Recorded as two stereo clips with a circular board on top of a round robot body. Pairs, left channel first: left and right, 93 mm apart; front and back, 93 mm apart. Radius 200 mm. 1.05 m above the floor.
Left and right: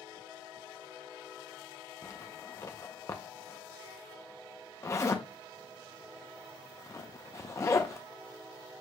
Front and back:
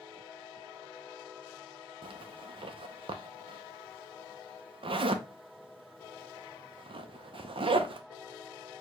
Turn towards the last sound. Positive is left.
turn(degrees=150)